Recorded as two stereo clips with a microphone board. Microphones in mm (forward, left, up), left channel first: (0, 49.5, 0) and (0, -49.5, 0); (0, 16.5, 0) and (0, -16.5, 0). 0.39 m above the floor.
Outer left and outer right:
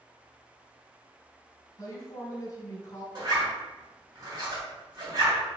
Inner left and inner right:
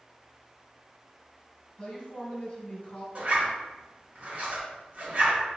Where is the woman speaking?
35° left (ahead or behind), 1.5 m.